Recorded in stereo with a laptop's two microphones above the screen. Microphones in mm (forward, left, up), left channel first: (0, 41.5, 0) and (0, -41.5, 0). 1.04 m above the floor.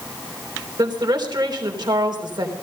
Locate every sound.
0.8 s a woman speaking: 60° right (ahead or behind), 3.5 m